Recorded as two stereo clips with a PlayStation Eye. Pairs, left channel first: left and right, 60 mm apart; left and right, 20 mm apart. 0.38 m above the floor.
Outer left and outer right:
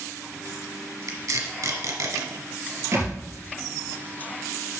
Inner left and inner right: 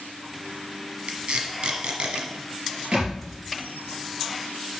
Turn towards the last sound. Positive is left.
turn(degrees=-55)  # may be behind; listen again after turning